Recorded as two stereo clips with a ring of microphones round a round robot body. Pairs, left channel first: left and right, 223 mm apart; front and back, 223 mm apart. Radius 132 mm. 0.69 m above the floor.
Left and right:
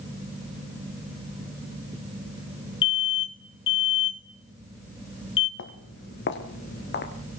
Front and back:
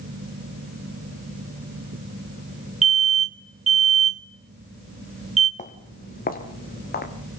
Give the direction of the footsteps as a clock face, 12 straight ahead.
10 o'clock.